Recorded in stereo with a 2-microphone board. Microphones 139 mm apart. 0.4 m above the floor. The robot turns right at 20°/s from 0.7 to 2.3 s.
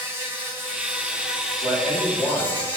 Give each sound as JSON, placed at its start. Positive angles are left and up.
{"t": 0.0, "sound": "an insect", "azimuth_deg": -15, "distance_m": 0.7}
{"t": 1.6, "sound": "a man speaking", "side_deg": 25, "distance_m": 1.0}